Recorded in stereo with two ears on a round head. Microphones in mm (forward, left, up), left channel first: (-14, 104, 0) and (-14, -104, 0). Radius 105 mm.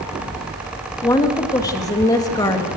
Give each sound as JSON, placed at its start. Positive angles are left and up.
{"t": 1.0, "sound": "a woman speaking", "side_deg": 15, "distance_m": 2.5}